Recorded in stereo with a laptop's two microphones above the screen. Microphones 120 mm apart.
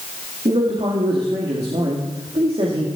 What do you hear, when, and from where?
0.5 s a man speaking: 60° right (ahead or behind), 2 m